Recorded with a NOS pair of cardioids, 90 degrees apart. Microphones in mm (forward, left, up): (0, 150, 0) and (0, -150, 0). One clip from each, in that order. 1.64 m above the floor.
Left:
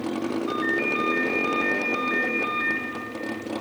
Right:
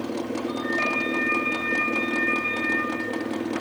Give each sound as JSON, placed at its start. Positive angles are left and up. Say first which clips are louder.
{"t": 0.5, "sound": "a ringtone", "louder": "left 1 dB", "azimuth_deg": 55, "distance_m": 1.9}